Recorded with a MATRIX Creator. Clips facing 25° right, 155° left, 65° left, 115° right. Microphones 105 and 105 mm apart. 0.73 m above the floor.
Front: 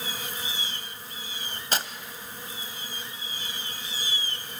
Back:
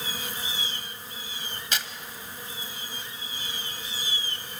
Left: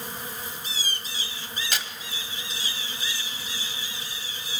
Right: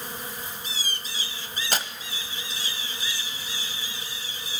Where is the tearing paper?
70° right, 1.1 m.